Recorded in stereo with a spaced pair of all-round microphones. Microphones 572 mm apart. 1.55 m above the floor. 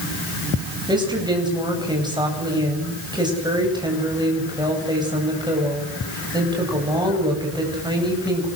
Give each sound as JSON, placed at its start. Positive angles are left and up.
{"t": 0.9, "sound": "a woman speaking", "side_deg": -5, "distance_m": 9.5}